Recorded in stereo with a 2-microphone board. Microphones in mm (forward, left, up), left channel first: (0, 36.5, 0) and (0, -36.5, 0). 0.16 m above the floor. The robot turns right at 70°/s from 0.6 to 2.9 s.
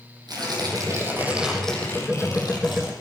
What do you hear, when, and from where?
0.3 s tearing paper: 70° right, 6.5 m; by 2.9 s 90° left, 6.5 m